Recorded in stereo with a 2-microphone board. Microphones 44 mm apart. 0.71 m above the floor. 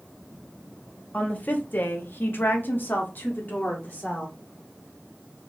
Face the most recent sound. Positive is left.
turn(degrees=40)  # may be behind; listen again after turning